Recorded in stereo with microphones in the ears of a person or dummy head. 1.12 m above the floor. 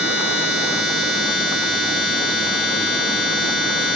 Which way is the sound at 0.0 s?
Centre (ahead or behind).